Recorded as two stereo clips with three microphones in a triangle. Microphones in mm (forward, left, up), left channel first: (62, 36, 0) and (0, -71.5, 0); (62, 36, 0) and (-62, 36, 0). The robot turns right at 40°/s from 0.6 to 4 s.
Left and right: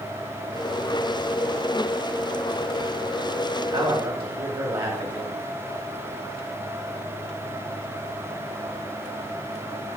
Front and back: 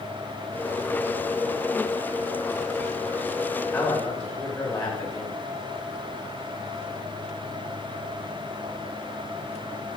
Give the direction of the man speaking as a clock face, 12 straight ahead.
3 o'clock.